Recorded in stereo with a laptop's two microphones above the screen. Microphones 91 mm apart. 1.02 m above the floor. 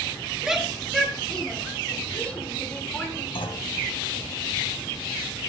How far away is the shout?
About 1.9 m.